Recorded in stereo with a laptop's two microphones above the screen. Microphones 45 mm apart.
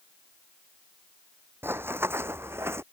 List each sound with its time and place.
1.6 s running footsteps: 60° right (ahead or behind); by 2.8 s 70° right (ahead or behind)